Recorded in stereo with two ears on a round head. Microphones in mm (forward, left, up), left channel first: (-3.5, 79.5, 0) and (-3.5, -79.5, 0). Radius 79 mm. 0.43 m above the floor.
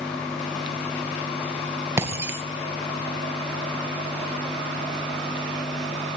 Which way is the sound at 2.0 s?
15° right (ahead or behind).